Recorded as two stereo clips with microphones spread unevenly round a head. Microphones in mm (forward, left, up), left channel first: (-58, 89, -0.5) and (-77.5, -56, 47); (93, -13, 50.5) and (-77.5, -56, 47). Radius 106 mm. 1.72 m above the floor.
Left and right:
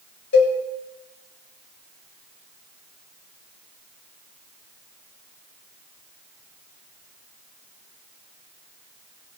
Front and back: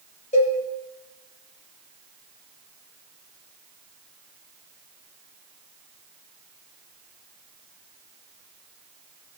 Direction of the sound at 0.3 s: 70° left.